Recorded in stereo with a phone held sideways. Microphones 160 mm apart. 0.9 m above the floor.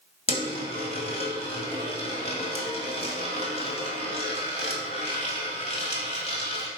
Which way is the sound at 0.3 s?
40° left (ahead or behind).